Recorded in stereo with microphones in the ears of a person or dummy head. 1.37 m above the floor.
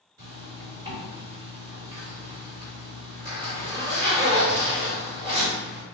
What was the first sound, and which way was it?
A zipper, 20° right (ahead or behind).